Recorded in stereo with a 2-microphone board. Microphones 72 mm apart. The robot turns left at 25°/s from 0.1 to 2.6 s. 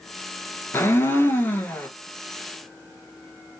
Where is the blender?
35° left (ahead or behind), 1.0 m; by 1.9 s 25° left (ahead or behind), 1.0 m.